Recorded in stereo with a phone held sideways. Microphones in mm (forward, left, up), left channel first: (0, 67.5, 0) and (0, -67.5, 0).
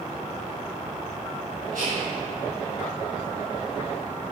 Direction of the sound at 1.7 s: 80° right.